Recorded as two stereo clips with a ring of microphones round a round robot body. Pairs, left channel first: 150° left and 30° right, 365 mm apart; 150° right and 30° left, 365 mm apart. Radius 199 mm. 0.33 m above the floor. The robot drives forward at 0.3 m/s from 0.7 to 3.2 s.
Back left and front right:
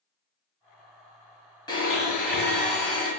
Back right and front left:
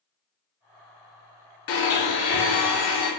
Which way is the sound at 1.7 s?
130° right.